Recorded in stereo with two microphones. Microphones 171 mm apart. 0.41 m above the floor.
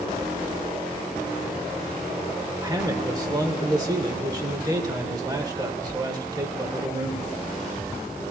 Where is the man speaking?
25° right (ahead or behind), 1.4 m.